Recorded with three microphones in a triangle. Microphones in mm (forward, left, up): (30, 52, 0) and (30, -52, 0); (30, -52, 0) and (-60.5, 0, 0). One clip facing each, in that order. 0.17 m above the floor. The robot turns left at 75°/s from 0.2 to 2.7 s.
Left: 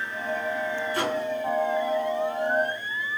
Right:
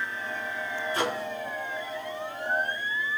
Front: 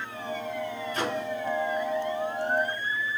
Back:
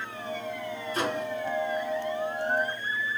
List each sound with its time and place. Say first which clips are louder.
0.9 s a microwave: left 1 dB, back 1 dB; 155° right, 3 m; by 1.3 s straight behind, 3 m